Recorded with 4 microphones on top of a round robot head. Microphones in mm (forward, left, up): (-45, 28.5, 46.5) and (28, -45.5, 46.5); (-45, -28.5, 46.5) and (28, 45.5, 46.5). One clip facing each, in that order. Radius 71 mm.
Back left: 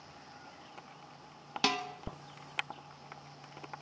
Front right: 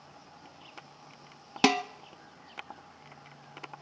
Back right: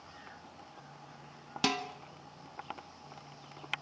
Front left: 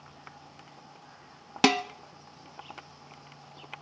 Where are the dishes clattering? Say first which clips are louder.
Front right 8 dB, front left 9 dB; 5° left, 0.7 m.